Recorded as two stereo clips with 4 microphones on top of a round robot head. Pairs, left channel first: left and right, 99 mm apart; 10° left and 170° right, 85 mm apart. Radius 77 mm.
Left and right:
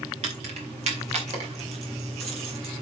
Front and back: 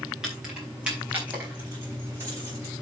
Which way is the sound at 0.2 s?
85° right.